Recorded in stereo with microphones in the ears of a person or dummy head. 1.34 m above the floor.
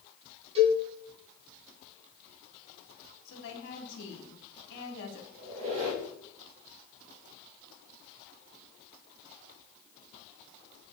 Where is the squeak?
30° right (ahead or behind), 3.5 m.